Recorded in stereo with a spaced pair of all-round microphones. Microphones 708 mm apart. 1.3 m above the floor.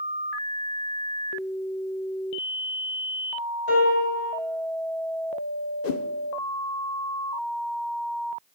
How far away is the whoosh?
About 0.7 m.